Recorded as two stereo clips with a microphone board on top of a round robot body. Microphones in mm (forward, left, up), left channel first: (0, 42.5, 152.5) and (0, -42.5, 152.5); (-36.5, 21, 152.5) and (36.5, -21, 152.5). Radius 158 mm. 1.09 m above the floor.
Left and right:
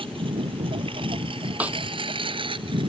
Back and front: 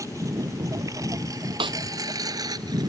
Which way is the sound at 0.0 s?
80° right.